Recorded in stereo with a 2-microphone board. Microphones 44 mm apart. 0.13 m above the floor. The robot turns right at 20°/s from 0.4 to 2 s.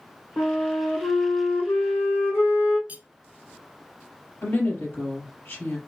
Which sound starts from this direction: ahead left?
A flute, at 0.4 s.